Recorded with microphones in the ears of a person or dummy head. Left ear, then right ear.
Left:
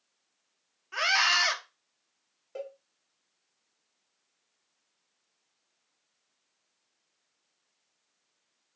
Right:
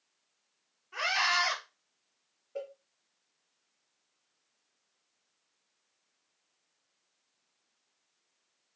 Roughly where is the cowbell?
Left.